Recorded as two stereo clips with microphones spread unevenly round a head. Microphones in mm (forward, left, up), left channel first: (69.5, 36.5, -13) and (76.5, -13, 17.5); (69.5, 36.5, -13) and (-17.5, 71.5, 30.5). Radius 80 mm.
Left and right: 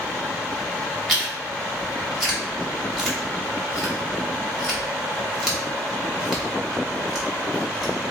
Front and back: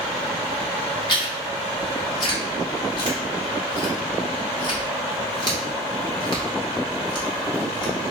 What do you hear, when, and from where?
1.1 s chewing: 10° left, 1.3 m